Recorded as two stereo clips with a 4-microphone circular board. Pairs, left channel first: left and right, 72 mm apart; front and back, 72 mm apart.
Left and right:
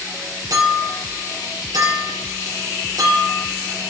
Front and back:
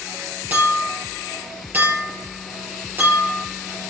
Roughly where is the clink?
Behind right.